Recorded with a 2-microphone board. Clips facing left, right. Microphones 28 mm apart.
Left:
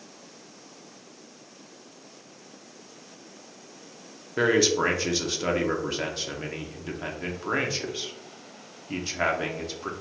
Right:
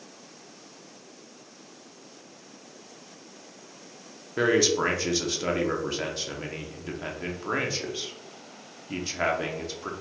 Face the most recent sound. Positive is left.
turn(degrees=10)  # may be behind; listen again after turning